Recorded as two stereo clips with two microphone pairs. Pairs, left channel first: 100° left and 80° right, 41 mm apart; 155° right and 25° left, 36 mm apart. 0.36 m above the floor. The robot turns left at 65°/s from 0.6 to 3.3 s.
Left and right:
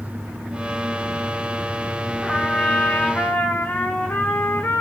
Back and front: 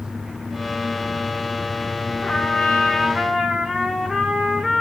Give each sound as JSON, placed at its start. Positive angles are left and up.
{"t": 2.2, "sound": "a trumpet", "azimuth_deg": 170, "distance_m": 0.7}